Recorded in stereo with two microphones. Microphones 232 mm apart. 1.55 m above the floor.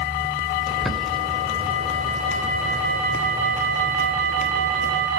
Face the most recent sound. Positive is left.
turn(degrees=0)  # may be behind; listen again after turning